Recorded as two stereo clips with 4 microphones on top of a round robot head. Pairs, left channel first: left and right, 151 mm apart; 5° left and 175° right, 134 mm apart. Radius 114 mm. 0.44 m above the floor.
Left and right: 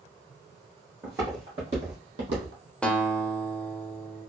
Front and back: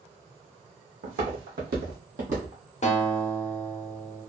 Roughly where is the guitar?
Ahead.